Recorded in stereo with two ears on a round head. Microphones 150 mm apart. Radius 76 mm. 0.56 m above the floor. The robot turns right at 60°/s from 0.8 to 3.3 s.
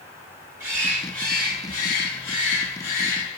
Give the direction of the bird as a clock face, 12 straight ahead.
12 o'clock.